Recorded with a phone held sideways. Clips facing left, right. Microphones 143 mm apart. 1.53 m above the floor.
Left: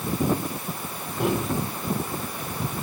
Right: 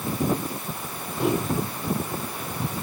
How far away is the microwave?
About 5.5 m.